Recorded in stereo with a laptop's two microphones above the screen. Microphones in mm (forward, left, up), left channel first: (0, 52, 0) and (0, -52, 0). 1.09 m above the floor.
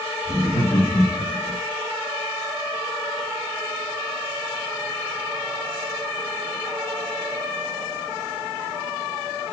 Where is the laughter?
40° left (ahead or behind), 1.6 m; by 1.6 s 55° left (ahead or behind), 0.9 m.